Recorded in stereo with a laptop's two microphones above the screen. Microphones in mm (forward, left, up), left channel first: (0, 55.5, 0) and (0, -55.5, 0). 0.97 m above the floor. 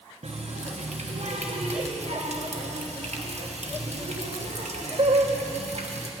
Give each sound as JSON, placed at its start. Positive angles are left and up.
{"t": 0.2, "sound": "a running tap", "side_deg": -75, "distance_m": 1.0}